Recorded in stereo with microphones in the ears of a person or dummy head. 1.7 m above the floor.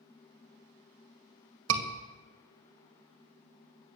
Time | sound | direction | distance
1.7 | a scream | 70° right (ahead or behind) | 2 m